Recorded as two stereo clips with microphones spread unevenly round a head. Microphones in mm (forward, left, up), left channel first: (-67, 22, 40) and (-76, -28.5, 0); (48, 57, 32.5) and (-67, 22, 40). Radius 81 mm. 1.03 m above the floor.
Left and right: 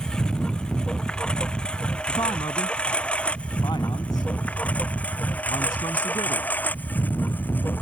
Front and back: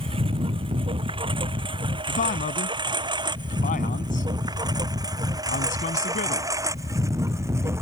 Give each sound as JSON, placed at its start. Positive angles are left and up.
{"t": 0.0, "sound": "a lawn mower", "azimuth_deg": 150}
{"t": 2.1, "sound": "a man speaking", "azimuth_deg": 35}